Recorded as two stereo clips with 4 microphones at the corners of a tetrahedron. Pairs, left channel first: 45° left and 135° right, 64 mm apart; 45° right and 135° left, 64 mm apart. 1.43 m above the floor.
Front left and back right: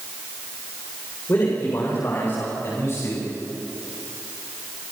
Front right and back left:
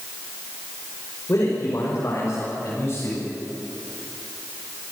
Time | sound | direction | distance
1.3 | a man speaking | straight ahead | 5 m